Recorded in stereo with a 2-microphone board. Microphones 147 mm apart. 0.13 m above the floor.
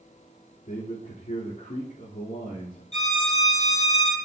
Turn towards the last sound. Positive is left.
turn(degrees=50)  # may be behind; listen again after turning